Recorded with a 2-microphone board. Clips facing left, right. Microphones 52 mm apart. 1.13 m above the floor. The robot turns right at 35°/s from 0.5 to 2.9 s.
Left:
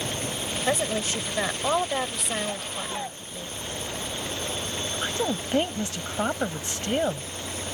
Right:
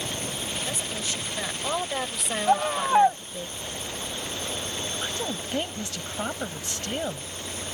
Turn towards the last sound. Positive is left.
turn(degrees=20)  # may be behind; listen again after turning